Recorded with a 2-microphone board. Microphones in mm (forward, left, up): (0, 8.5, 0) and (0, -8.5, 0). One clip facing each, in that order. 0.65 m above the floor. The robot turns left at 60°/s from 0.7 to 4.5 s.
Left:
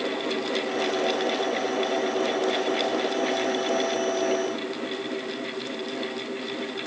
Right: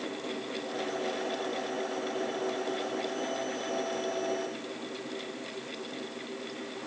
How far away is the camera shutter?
No camera shutter in this recording.